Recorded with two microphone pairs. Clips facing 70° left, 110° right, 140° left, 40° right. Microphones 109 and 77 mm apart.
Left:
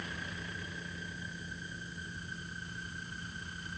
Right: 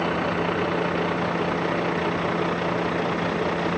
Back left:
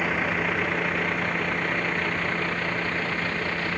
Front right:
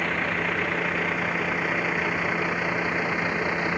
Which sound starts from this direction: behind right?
A vehicle, at 0.0 s.